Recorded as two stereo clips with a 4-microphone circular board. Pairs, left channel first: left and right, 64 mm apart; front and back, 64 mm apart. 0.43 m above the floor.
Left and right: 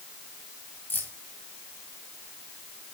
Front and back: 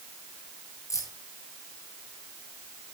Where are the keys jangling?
30° left, 7.5 m.